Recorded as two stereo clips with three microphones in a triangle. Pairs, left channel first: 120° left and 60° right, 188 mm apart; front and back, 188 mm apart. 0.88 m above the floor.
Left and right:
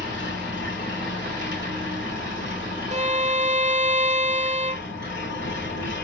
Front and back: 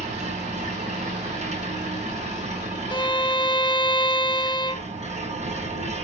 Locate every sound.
0.0 s an engine running: 125° left, 4 m
2.9 s a violin: 45° right, 0.7 m